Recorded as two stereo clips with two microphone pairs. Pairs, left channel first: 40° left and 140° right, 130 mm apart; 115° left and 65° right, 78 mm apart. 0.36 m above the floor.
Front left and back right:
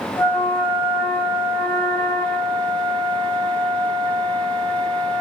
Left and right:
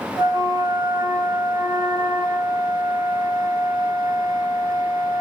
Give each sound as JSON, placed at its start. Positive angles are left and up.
{"t": 0.2, "sound": "a flute", "azimuth_deg": -35, "distance_m": 0.8}